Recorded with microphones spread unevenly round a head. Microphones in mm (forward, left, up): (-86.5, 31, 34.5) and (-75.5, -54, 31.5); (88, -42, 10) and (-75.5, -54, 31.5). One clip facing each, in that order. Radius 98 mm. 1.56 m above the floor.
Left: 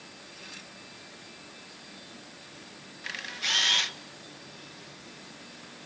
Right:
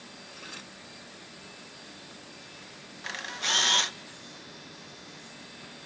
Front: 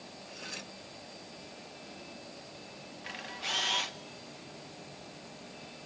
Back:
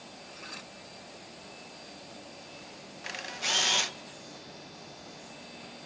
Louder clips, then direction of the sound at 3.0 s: Right 2 dB, back 4 dB; 140° right.